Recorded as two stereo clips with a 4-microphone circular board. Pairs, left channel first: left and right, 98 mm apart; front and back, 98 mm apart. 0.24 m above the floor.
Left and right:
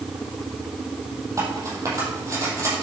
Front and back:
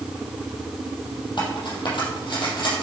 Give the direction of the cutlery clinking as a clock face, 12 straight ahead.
1 o'clock.